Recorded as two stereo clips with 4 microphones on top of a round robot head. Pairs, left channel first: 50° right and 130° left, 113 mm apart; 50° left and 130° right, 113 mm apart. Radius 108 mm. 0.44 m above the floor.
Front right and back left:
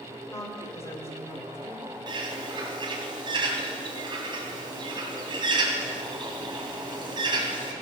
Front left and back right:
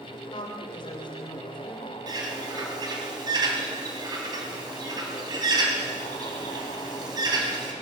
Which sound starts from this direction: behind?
A bird, at 2.1 s.